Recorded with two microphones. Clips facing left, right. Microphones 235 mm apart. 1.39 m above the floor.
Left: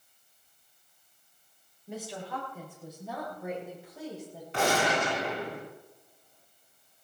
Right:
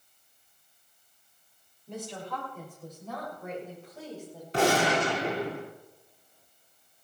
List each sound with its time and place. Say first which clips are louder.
1.9 s a woman speaking: even; 5° left (ahead or behind), 6.5 m; by 4.4 s 15° left (ahead or behind), 7.5 m
4.5 s a gunshot: right 3 dB; 35° right (ahead or behind), 2 m